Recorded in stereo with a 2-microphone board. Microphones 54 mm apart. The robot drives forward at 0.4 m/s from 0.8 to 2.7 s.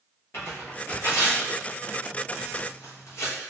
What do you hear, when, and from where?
0.3 s tearing paper: 45° left (ahead or behind), 1.1 m; by 3.4 s 70° left (ahead or behind), 0.9 m